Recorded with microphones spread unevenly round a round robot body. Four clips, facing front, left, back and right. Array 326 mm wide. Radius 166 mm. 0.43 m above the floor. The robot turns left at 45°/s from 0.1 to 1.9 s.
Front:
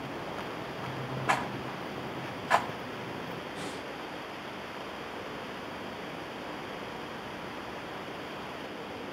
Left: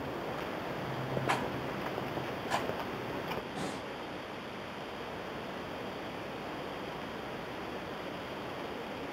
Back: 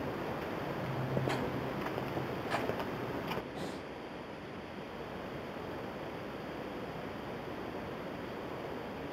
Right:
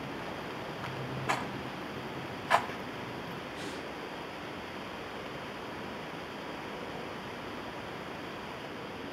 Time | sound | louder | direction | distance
1.3 | a rattle | right 2 dB, front 4 dB | straight ahead | 3 m
3.5 | breathing | left 1 dB, front 2 dB | 85° left | 4.5 m